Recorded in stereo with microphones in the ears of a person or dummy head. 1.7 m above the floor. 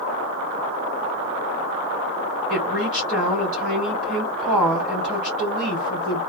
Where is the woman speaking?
Centre (ahead or behind), 1.6 m.